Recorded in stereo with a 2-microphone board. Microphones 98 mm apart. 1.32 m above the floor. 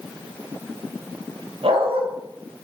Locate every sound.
1.6 s a dog barking: 75° right (ahead or behind), 3.5 m